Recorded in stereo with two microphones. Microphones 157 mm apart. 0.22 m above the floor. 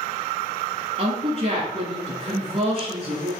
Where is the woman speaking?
40° right (ahead or behind), 2.5 m.